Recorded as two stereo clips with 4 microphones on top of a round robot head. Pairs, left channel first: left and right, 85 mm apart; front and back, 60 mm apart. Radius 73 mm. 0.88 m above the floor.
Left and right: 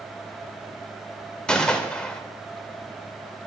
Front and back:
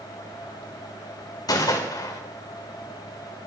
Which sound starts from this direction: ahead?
A gunshot, at 1.5 s.